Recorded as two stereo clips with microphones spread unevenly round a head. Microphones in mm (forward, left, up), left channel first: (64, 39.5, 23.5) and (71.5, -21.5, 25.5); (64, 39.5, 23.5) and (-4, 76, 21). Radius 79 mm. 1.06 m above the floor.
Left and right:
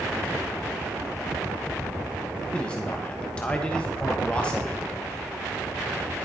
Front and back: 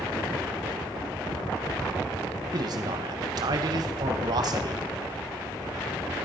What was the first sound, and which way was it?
A man speaking, 170° left.